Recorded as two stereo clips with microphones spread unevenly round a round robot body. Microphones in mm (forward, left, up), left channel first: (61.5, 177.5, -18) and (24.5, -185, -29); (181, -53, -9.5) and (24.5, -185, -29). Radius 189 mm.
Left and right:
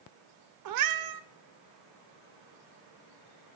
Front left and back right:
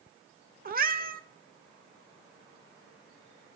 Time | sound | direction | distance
0.7 | a cat meowing | 115° right | 0.6 m